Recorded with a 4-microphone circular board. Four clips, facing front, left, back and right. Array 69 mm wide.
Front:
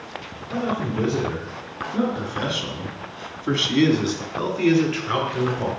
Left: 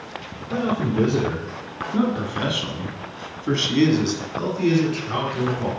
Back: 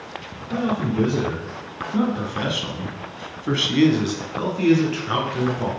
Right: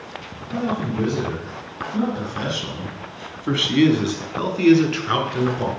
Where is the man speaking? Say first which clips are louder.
Left 2 dB, back 2 dB; 105° left, 2 m; by 5.7 s 85° right, 2.5 m.